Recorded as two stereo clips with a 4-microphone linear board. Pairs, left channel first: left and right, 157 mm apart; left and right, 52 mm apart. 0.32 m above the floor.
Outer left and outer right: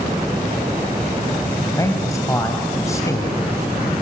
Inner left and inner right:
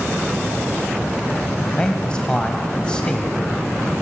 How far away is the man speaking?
About 2 m.